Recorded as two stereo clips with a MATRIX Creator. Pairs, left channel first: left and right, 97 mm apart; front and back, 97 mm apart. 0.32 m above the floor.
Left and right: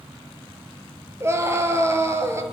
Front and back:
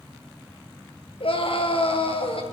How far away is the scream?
About 5.5 m.